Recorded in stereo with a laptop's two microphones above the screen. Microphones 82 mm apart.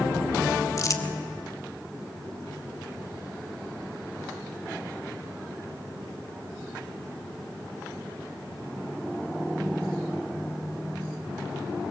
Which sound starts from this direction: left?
Crumpling, at 0.8 s.